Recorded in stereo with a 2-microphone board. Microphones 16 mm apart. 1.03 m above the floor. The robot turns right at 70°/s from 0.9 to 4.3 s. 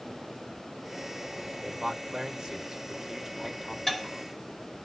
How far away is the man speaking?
About 1.3 m.